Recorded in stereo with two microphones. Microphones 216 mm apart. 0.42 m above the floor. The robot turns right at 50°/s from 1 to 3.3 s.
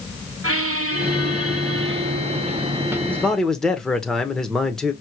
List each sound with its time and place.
0.4 s a squeak: 105° right, 0.5 m; by 3.0 s 5° right, 0.5 m
3.1 s a man speaking: 10° left (ahead or behind), 0.9 m; by 4.9 s centre (ahead or behind), 0.9 m